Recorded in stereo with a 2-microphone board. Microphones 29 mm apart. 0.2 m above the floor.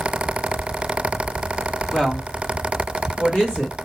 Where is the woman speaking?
30° left (ahead or behind), 1.5 m; by 3.8 s 45° left (ahead or behind), 2.5 m.